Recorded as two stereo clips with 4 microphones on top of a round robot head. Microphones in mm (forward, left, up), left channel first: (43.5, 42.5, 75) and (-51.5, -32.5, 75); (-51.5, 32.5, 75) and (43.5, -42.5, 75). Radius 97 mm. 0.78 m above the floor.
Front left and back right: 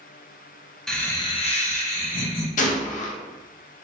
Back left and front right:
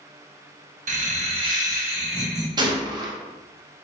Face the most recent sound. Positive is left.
turn(degrees=20)